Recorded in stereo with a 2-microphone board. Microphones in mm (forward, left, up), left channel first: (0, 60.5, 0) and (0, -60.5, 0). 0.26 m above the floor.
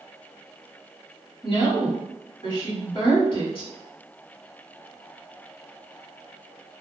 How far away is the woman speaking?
About 1.5 m.